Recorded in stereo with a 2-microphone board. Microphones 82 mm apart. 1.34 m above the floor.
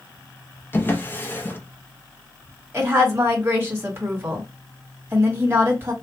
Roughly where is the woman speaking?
Right.